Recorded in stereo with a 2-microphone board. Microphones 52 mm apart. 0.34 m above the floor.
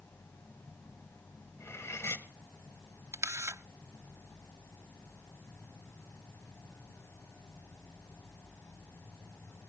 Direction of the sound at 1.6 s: 55° left (ahead or behind).